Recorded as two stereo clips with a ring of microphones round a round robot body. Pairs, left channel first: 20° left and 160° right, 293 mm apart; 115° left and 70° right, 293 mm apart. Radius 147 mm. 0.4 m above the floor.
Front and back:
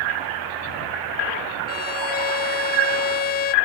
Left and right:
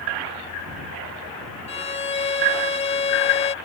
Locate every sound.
1.7 s a violin: 55° left